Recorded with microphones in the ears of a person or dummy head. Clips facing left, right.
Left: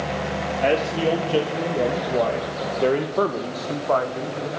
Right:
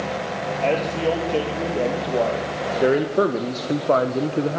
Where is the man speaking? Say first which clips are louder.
Left 1 dB; 10° left (ahead or behind), 3 m; by 4.6 s 55° right (ahead or behind), 1.4 m.